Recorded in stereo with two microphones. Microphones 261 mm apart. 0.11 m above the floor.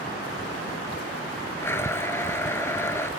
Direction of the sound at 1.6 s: 10° left (ahead or behind).